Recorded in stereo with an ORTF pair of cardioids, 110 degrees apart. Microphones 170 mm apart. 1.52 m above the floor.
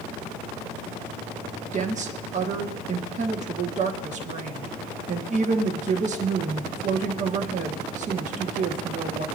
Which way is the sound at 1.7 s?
45° right.